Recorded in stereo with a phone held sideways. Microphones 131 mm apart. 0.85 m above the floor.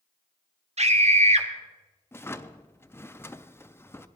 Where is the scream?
55° right (ahead or behind), 1.3 m.